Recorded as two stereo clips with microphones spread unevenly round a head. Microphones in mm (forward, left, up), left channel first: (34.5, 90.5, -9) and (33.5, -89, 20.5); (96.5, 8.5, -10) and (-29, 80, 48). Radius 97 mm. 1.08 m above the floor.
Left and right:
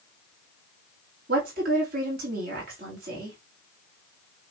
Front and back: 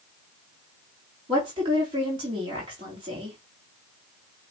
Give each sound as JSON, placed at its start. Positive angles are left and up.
{"t": 1.3, "sound": "a woman speaking", "azimuth_deg": -140, "distance_m": 3.0}